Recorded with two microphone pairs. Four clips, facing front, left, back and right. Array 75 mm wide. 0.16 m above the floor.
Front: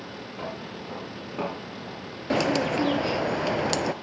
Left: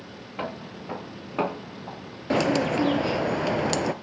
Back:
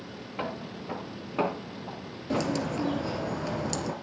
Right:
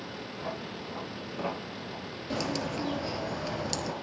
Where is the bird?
40° left, 0.9 m.